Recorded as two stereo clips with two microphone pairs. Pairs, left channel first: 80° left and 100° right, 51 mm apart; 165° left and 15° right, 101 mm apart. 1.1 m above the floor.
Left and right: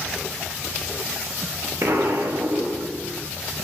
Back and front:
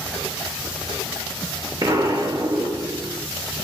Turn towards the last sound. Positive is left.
turn(degrees=-65)